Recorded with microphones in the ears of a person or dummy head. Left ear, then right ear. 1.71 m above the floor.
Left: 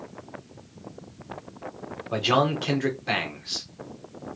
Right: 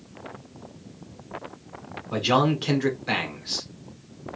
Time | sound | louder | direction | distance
2.1 | a man speaking | even | 5° left (ahead or behind) | 1.4 m